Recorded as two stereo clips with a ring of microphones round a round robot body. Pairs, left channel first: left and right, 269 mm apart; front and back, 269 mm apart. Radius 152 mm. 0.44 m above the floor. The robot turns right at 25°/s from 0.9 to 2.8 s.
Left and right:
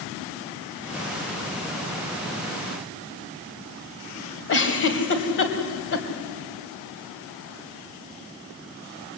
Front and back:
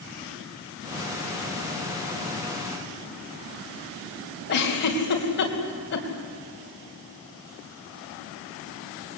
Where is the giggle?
50° left, 3 m.